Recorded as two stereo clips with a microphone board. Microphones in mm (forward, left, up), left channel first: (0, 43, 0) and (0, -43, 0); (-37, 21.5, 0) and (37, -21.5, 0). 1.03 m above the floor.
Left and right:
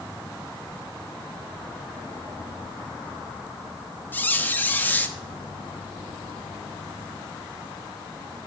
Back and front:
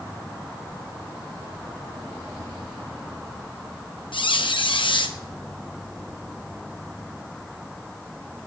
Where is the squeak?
160° left, 0.7 m.